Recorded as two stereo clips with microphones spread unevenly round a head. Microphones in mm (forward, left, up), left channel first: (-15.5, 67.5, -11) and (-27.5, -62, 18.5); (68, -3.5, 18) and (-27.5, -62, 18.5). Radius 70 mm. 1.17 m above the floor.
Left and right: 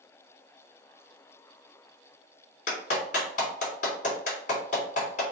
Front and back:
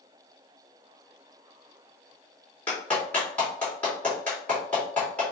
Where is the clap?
115° left, 3 m.